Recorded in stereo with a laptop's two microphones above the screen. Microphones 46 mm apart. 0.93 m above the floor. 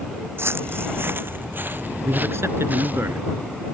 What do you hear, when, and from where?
0.4 s footsteps: 65° right (ahead or behind); by 3.0 s 40° right (ahead or behind)
2.0 s a man speaking: 70° right (ahead or behind)